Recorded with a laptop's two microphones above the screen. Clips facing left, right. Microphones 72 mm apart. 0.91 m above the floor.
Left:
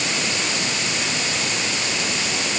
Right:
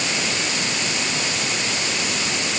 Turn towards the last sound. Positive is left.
No sound to turn to.